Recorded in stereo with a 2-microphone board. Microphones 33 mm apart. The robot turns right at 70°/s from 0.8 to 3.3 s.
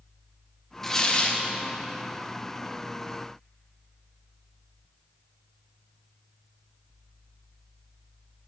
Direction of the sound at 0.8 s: 5° left.